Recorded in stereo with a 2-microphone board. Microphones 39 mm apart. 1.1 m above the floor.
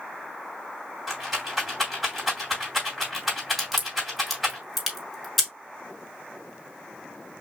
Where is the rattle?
5° right (ahead or behind), 2.5 m.